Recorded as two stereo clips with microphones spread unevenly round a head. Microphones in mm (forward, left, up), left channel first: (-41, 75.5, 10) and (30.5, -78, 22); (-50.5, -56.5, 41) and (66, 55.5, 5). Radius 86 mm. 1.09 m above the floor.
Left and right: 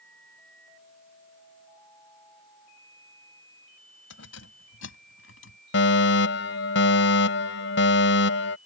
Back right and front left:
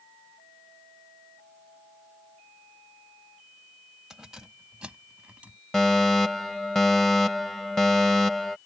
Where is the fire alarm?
135° left.